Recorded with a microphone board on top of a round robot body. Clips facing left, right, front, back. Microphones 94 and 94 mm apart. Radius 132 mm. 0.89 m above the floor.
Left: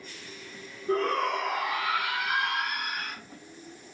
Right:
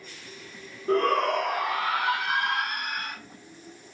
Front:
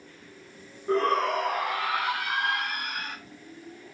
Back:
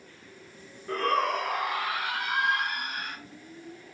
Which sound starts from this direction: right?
A shout, at 0.9 s.